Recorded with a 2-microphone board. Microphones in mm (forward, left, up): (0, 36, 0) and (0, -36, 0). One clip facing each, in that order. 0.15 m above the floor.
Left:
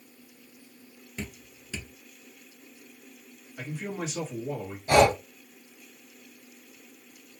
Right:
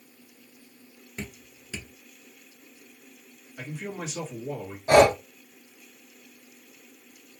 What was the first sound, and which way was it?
Dripping, 15° right (ahead or behind).